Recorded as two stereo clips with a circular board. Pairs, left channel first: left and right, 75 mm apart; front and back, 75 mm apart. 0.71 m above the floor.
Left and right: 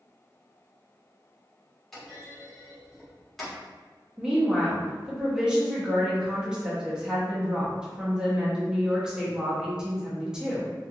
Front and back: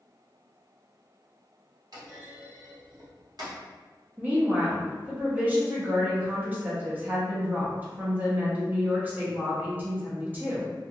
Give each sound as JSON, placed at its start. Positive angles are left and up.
{"t": 1.9, "sound": "a clunk", "azimuth_deg": 175, "distance_m": 1.3}
{"t": 4.2, "sound": "a woman speaking", "azimuth_deg": -155, "distance_m": 0.8}